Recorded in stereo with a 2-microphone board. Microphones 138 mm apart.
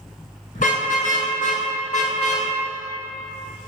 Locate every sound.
0.6 s a car horn: 70° left (ahead or behind), 6 m; by 2.5 s 55° left (ahead or behind), 5 m